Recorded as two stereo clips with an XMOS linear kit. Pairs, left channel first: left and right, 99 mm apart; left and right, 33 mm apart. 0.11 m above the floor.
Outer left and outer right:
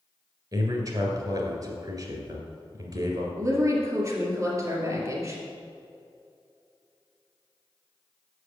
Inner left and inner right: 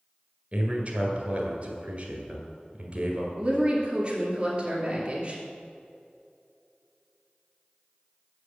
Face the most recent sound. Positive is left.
turn(degrees=-35)  # may be behind; listen again after turning